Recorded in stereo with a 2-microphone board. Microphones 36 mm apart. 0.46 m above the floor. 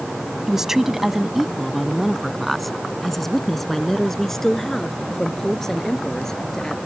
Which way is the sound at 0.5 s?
10° right (ahead or behind).